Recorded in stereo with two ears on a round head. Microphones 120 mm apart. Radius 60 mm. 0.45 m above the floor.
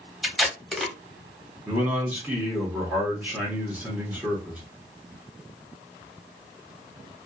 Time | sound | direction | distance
0.2 | tape being pulled | centre (ahead or behind) | 0.9 m
1.6 | a man speaking | 10° right (ahead or behind) | 1.3 m